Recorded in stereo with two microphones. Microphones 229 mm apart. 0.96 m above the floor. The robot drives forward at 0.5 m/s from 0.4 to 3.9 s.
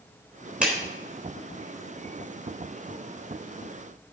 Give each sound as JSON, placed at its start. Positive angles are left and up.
{"t": 0.6, "sound": "a clap", "side_deg": -5, "distance_m": 3.5}